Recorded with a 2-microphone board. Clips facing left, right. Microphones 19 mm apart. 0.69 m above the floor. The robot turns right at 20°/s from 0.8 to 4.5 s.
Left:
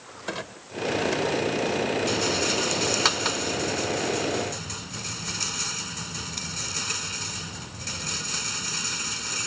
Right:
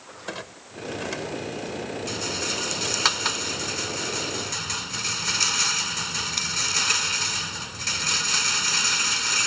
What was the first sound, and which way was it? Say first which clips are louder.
A clunk: left 2 dB; 5° left (ahead or behind).